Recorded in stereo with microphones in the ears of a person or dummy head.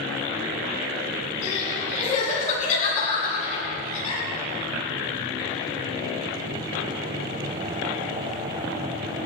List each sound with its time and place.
1.4 s crying: 40° left (ahead or behind), 10 m